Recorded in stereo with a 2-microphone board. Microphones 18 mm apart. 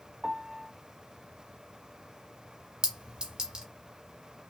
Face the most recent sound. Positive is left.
turn(degrees=-55)  # may be behind; listen again after turning